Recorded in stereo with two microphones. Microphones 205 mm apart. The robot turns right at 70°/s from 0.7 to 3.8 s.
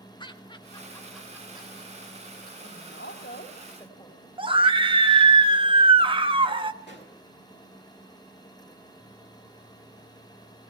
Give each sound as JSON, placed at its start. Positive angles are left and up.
{"t": 0.2, "sound": "laughter", "side_deg": 20, "distance_m": 1.5}
{"t": 2.6, "sound": "a woman speaking", "azimuth_deg": 75, "distance_m": 3.0}
{"t": 4.4, "sound": "a scream", "side_deg": -25, "distance_m": 1.2}
{"t": 6.8, "sound": "a pop", "side_deg": 60, "distance_m": 5.5}